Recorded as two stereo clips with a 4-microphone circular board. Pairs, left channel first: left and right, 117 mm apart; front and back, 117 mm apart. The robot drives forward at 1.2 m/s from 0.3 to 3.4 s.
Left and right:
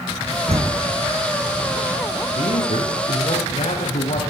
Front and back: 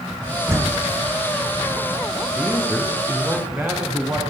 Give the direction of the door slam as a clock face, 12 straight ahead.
4 o'clock.